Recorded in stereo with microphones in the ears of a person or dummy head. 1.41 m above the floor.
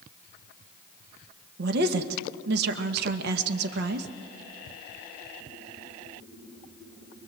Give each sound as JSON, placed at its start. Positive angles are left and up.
{"t": 1.6, "sound": "a woman speaking", "side_deg": -65, "distance_m": 1.5}